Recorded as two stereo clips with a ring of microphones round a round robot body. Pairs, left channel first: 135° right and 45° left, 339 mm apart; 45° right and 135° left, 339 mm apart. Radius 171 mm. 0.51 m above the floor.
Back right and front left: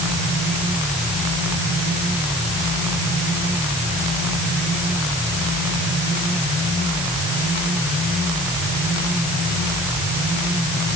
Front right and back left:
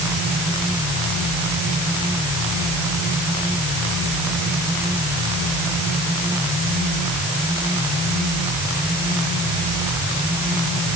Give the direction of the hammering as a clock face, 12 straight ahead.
No hammering in this recording.